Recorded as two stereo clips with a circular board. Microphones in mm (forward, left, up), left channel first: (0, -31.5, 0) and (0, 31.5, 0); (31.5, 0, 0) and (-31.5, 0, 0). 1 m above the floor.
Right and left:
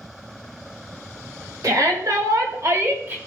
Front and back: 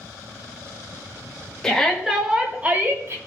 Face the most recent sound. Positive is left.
turn(degrees=140)